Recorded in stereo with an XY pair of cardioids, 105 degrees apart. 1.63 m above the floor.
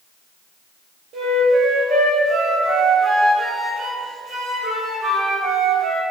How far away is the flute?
About 5 m.